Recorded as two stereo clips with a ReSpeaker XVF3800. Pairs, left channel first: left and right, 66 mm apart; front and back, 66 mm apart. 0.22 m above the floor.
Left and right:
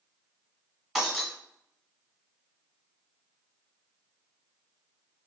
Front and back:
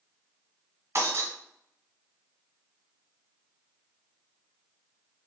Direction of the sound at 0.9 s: 175° right.